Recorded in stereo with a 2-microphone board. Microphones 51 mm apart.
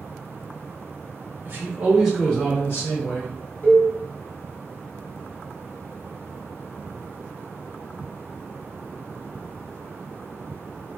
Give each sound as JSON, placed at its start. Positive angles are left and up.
{"t": 1.4, "sound": "a man speaking", "side_deg": -45, "distance_m": 0.9}
{"t": 3.6, "sound": "a cowbell", "side_deg": 40, "distance_m": 1.1}